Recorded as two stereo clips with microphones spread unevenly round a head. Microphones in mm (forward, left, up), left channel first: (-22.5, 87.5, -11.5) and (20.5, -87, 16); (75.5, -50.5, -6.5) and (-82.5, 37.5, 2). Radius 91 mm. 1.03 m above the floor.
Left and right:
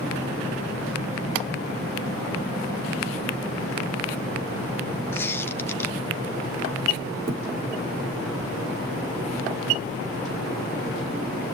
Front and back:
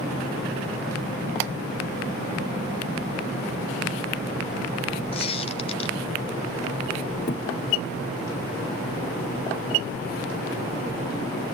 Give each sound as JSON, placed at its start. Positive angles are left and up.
{"t": 5.1, "sound": "a squeak", "azimuth_deg": 20, "distance_m": 0.6}
{"t": 7.3, "sound": "a thud", "azimuth_deg": -55, "distance_m": 2.0}